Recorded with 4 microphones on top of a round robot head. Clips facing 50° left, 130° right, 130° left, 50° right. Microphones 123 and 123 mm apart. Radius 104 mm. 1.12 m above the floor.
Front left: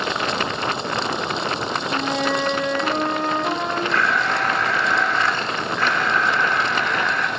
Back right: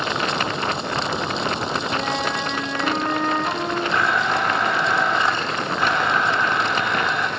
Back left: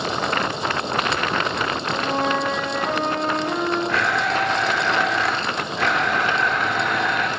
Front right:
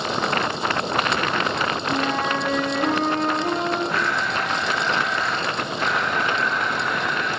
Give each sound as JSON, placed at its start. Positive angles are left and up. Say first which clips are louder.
{"t": 1.9, "sound": "a flute", "louder": "front left 2 dB, back left 2 dB", "azimuth_deg": -20, "distance_m": 4.5}
{"t": 3.9, "sound": "a blender", "louder": "back right 2 dB, back left 3 dB", "azimuth_deg": 160, "distance_m": 1.2}